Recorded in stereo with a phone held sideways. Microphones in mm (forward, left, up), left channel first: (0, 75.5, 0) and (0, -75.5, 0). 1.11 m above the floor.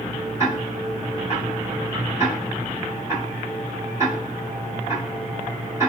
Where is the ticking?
20° right (ahead or behind), 1.7 m.